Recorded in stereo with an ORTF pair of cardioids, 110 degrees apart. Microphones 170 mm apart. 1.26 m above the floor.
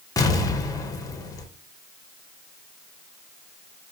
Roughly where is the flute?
I don't hear a flute.